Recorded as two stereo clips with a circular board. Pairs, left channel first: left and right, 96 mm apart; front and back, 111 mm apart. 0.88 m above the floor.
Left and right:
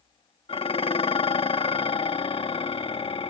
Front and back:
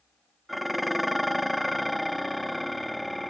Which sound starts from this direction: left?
Dishes clattering, at 0.5 s.